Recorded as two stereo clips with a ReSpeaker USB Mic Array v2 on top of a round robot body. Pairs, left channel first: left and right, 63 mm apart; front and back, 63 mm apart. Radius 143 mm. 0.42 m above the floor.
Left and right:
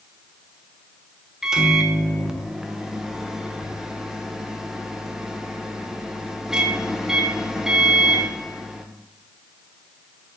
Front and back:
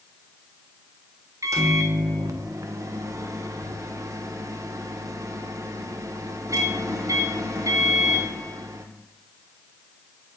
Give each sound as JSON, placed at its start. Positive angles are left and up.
{"t": 1.4, "sound": "a microwave", "azimuth_deg": -170, "distance_m": 1.1}